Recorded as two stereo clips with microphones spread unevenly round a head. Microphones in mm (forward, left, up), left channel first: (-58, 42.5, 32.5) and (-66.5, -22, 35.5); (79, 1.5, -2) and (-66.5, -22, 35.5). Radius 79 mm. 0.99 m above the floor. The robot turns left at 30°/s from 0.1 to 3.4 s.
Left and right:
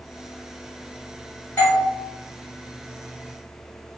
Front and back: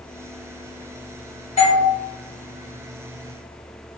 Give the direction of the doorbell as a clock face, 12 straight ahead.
11 o'clock.